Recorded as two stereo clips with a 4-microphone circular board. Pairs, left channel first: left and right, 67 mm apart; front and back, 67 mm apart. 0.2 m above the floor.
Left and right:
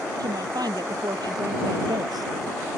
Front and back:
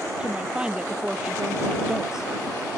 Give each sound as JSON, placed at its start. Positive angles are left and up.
{"t": 0.2, "sound": "a woman speaking", "azimuth_deg": -105}